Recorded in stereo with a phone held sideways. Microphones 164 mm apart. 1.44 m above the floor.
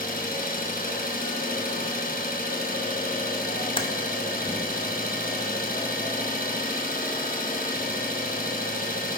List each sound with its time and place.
0.0 s an engine running: 60° left (ahead or behind), 1.5 m
3.8 s typing on a keyboard: 35° left (ahead or behind), 1.0 m